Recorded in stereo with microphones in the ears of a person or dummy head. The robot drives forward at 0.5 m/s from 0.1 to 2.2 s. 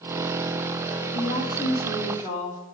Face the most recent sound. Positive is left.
turn(degrees=40)  # may be behind; listen again after turning